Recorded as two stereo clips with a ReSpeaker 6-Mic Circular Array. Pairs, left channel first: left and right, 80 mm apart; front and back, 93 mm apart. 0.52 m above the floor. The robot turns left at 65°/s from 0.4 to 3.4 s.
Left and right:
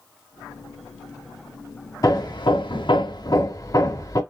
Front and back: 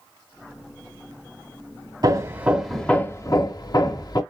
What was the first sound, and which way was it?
Hammering, 135° left.